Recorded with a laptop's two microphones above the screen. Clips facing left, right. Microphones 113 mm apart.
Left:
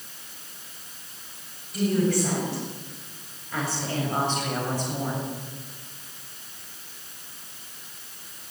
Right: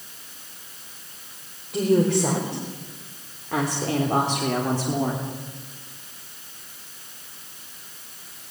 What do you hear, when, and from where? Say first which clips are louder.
1.7 s a woman speaking: right 4 dB; 80° right, 5 m; by 5.2 s 70° right (ahead or behind), 3 m